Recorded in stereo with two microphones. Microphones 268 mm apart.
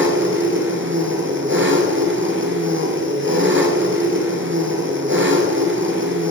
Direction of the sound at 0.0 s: 45° right (ahead or behind).